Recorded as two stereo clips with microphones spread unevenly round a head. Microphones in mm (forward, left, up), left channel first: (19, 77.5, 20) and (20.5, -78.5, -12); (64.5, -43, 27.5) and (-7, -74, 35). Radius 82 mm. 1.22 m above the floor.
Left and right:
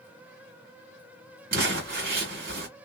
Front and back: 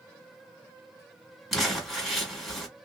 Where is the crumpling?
75° right, 1.5 m.